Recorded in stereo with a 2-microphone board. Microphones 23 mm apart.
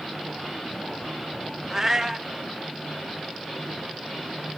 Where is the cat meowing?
15° right (ahead or behind), 0.5 m.